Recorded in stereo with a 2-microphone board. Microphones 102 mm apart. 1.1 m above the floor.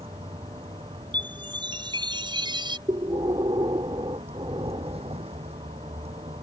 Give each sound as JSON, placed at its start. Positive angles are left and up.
{"t": 0.0, "sound": "a vehicle", "side_deg": -70}
{"t": 1.1, "sound": "a chime", "side_deg": -50}
{"t": 2.9, "sound": "breathing", "side_deg": -55}